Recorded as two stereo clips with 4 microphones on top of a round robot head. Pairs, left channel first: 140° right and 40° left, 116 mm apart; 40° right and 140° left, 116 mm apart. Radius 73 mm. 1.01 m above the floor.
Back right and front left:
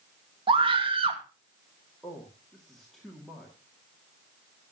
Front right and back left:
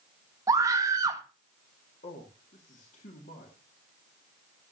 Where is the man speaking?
50° right, 2 m.